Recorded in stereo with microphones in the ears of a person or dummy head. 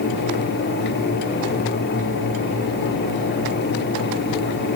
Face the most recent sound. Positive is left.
No sound to turn to.